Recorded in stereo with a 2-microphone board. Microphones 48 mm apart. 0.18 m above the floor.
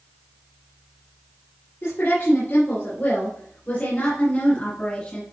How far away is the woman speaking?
About 3.5 m.